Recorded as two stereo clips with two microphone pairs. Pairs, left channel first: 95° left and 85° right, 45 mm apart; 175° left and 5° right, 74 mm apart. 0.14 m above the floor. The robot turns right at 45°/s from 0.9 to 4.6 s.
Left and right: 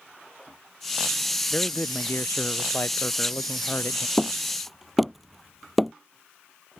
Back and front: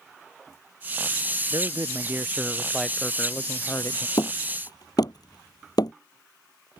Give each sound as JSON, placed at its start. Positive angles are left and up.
{"t": 1.5, "sound": "a man speaking", "azimuth_deg": 25}
{"t": 4.2, "sound": "hammering", "azimuth_deg": 170}